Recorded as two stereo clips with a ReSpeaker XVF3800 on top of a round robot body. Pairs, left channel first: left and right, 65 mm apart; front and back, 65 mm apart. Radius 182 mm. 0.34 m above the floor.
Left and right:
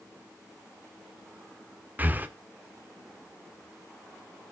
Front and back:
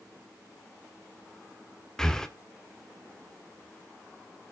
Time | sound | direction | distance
2.0 | breathing | 70° right | 1.3 m